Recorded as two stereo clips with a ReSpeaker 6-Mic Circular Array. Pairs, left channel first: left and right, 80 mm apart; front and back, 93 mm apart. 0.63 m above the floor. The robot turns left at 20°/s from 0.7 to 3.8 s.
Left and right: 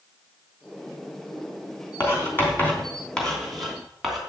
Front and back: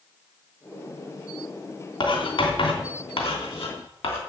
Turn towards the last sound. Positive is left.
turn(degrees=0)